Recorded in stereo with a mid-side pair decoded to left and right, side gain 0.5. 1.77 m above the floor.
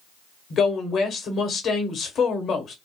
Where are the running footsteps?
No running footsteps in this recording.